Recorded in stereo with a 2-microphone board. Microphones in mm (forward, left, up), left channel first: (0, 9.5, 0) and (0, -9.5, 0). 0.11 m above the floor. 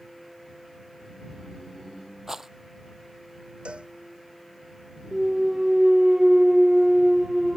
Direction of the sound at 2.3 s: 25° right (ahead or behind).